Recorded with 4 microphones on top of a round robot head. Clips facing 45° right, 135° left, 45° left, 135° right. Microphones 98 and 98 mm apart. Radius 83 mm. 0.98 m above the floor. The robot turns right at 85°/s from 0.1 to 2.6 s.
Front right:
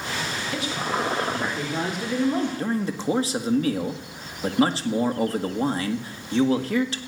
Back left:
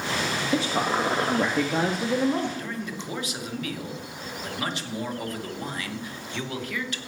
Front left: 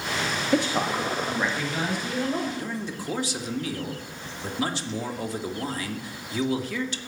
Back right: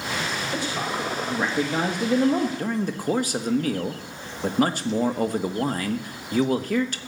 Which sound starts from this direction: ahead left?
A man speaking, at 0.5 s.